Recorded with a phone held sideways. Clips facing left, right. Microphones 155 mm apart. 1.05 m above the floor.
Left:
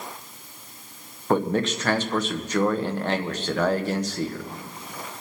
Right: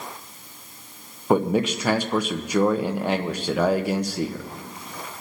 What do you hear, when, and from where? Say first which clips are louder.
1.3 s a man speaking: right 2 dB; 10° right (ahead or behind), 0.9 m